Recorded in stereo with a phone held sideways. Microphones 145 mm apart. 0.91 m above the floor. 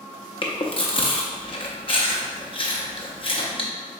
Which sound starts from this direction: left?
Chewing, at 0.4 s.